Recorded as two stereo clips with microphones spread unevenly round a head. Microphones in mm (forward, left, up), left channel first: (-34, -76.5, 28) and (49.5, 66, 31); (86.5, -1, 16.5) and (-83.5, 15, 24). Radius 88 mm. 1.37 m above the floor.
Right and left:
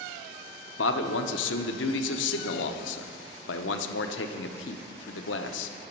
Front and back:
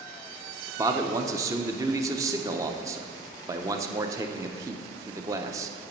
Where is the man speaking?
115° right, 0.6 m.